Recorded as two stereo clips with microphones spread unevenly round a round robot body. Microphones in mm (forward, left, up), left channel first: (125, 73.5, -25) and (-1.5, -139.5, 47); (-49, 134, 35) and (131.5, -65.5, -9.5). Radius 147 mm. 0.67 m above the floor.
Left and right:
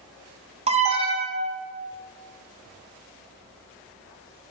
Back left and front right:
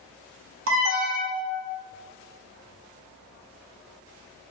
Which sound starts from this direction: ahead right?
An alarm, at 0.7 s.